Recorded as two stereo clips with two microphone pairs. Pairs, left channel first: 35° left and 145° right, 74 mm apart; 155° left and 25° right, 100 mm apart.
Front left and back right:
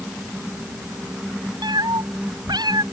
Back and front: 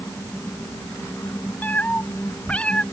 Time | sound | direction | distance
1.6 | a cat meowing | 135° right | ?